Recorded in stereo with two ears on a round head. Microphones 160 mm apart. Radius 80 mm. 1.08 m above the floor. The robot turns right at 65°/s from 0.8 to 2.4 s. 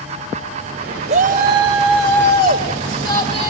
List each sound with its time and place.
1.1 s a shout: 140° right, 5 m; by 3.5 s 55° right, 5 m